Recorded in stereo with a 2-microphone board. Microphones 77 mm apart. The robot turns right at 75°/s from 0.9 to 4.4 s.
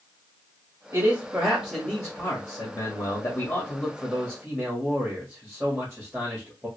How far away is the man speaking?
About 1.4 m.